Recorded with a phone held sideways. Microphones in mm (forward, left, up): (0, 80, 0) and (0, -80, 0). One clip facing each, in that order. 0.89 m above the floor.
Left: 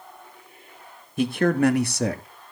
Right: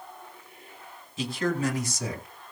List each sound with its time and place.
1.2 s a man speaking: 55° left (ahead or behind), 1.1 m; by 2.2 s 70° left (ahead or behind), 1.5 m